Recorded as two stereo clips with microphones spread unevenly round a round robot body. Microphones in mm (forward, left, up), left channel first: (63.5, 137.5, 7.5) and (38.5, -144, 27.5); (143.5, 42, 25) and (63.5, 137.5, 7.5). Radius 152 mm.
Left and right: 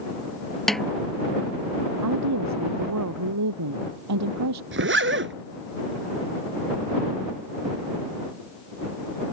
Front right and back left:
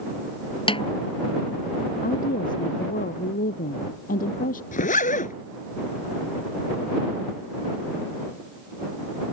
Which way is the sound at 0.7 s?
5° right.